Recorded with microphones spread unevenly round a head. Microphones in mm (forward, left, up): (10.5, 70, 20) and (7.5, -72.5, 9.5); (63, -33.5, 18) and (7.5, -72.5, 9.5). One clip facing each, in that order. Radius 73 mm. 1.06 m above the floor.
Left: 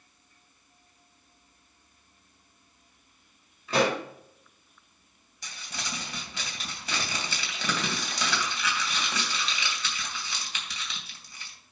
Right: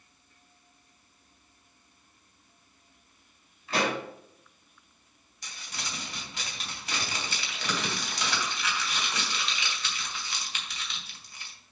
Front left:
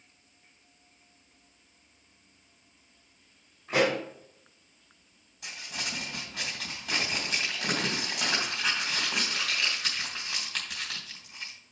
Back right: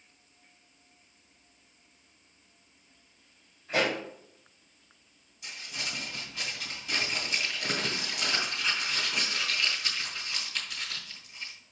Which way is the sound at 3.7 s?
100° left.